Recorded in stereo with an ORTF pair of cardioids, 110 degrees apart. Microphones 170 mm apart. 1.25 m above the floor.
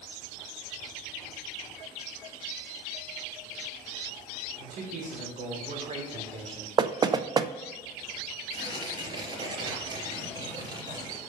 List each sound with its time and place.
4.6 s a man speaking: 55° right, 4 m; by 6.7 s 30° right, 3.5 m
6.8 s knocking: 25° right, 0.6 m
8.5 s tearing paper: 30° right, 3.5 m